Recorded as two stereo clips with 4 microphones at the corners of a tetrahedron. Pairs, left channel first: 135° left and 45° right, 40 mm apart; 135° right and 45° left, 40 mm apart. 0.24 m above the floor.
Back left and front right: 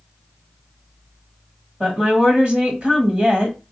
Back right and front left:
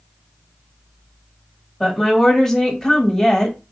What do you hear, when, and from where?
1.8 s a woman speaking: 60° right, 1.1 m